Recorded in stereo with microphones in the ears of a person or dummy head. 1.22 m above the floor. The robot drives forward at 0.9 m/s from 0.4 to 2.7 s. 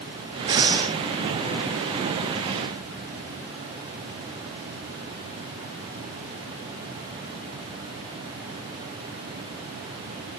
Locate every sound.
0.5 s breathing: 20° right (ahead or behind), 1.4 m; by 0.9 s 15° right (ahead or behind), 1.8 m